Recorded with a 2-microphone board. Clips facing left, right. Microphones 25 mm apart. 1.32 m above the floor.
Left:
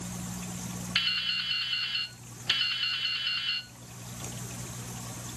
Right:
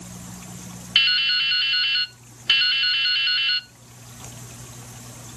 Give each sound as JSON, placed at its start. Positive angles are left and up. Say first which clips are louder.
{"t": 0.9, "sound": "dripping", "louder": "right 10 dB", "side_deg": -45, "distance_m": 0.5}